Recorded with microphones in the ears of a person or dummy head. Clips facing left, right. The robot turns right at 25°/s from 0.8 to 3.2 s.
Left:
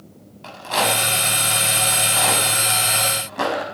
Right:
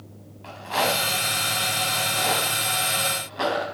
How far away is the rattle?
About 4.5 m.